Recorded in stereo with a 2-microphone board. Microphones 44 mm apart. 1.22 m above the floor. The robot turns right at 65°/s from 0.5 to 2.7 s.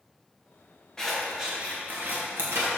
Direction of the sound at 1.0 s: 15° left (ahead or behind).